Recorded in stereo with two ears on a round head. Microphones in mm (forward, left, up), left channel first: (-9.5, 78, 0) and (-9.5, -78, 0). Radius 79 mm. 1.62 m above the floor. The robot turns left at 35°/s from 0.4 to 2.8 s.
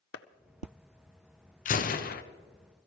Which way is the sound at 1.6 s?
45° left (ahead or behind).